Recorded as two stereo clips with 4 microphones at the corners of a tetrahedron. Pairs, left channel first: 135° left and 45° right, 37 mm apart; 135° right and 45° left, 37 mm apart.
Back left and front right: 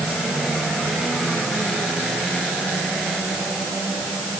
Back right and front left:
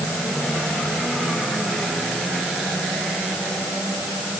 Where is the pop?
No pop in this recording.